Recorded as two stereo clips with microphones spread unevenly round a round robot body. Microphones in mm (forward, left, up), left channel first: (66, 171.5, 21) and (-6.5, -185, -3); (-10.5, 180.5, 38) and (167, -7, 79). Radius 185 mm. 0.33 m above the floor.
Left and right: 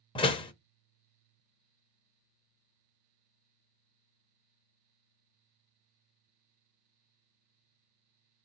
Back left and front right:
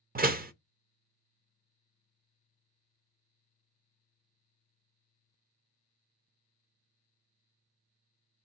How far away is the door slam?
About 0.7 m.